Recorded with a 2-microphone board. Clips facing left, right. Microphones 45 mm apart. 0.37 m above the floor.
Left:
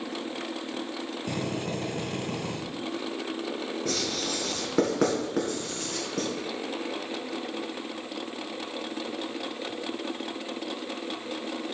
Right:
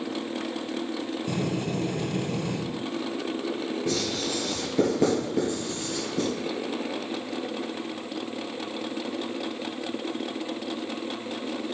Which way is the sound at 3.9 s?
75° left (ahead or behind).